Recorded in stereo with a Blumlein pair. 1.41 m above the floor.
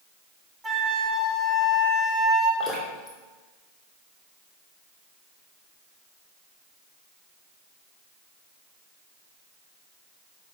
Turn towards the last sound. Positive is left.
turn(degrees=15)